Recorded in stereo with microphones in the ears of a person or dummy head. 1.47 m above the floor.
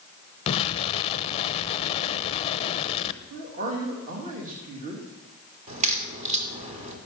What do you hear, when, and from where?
0.5 s an explosion: 30° left (ahead or behind), 0.8 m
3.3 s a man speaking: 40° right (ahead or behind), 2.5 m
5.7 s a crack: 35° right (ahead or behind), 3 m